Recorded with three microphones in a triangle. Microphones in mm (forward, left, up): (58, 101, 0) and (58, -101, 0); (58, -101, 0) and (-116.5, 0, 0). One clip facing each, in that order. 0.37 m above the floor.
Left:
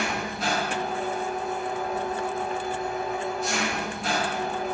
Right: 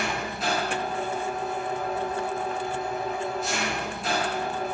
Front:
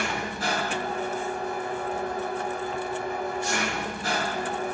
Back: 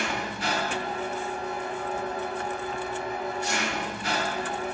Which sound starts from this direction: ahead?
An engine running, at 0.0 s.